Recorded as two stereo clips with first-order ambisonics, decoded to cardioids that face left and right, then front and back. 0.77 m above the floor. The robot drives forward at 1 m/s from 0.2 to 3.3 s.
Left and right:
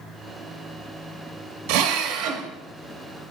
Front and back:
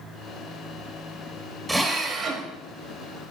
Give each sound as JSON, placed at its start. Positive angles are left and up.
{"t": 1.7, "sound": "a drill", "azimuth_deg": -95, "distance_m": 1.1}